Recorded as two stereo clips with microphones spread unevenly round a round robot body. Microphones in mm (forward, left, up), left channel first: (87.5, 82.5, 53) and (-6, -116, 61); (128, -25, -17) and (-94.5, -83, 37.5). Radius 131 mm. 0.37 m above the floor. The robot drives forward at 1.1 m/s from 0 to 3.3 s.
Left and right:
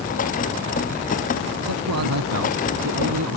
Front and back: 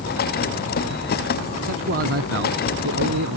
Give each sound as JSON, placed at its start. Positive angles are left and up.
{"t": 1.6, "sound": "a man speaking", "azimuth_deg": -125}